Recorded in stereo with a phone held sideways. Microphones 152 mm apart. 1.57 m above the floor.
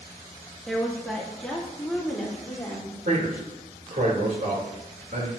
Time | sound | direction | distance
0.7 | a woman speaking | centre (ahead or behind) | 2.0 m
3.0 | a man speaking | 70° right (ahead or behind) | 3 m